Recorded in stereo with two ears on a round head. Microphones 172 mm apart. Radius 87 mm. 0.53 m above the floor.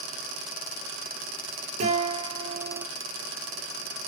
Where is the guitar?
35° right (ahead or behind), 6 m.